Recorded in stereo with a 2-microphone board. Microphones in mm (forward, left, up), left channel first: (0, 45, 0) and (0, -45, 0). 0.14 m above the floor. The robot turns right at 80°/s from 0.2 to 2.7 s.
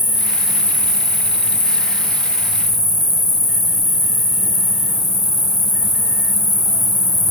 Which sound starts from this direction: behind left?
An insect, at 0.0 s.